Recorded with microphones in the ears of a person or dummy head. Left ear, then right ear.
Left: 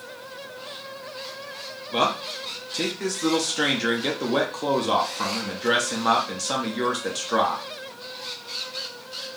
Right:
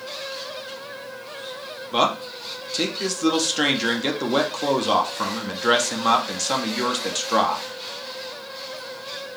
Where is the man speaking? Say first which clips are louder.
Right 2 dB; 5° right (ahead or behind), 0.6 m.